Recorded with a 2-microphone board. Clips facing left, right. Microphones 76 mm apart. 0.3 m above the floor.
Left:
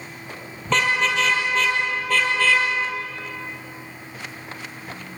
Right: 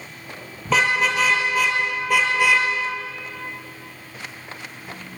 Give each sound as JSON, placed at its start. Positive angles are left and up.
{"t": 0.7, "sound": "a car horn", "side_deg": -5, "distance_m": 5.0}